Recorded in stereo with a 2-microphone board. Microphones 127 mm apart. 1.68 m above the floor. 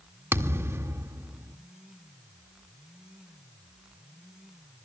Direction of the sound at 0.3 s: 20° right (ahead or behind).